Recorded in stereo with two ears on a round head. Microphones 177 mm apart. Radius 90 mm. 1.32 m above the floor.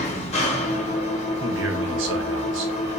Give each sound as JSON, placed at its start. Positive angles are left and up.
{"t": 0.0, "sound": "an engine running", "side_deg": 35, "distance_m": 0.9}
{"t": 1.4, "sound": "a man speaking", "side_deg": -80, "distance_m": 0.7}